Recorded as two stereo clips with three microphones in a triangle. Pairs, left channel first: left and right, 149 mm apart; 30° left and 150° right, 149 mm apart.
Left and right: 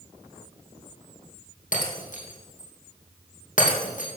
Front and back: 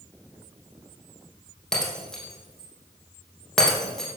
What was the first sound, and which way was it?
Breaking glass, 115° left.